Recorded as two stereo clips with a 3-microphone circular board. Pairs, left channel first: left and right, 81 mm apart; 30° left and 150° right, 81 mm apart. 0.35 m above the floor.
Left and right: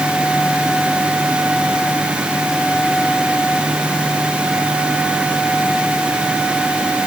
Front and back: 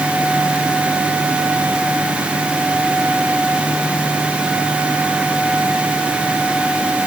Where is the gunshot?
I don't hear a gunshot.